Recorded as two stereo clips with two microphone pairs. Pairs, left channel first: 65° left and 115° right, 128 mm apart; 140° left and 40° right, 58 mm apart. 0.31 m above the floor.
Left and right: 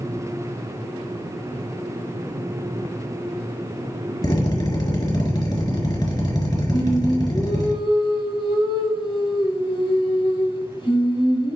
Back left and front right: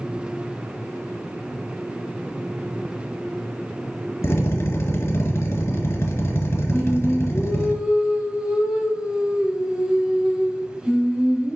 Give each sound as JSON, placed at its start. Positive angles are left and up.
{"t": 4.2, "sound": "a drill", "azimuth_deg": 115, "distance_m": 2.5}
{"t": 6.7, "sound": "singing", "azimuth_deg": 30, "distance_m": 1.1}